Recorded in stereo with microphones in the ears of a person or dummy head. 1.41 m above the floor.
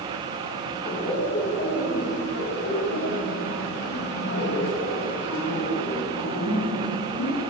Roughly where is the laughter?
Left.